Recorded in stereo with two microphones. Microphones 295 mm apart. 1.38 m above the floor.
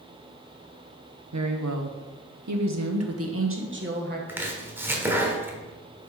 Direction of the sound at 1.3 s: 70° right (ahead or behind).